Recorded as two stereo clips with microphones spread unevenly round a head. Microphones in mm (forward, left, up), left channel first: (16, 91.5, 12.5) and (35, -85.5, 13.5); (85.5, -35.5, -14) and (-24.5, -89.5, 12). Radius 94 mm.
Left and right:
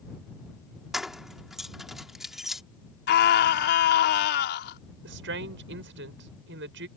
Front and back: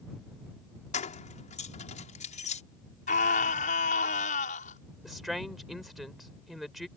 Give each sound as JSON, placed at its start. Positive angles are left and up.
{"t": 0.9, "sound": "keys jangling", "azimuth_deg": 5}
{"t": 3.1, "sound": "a scream", "azimuth_deg": 70}
{"t": 5.0, "sound": "a woman speaking", "azimuth_deg": -65}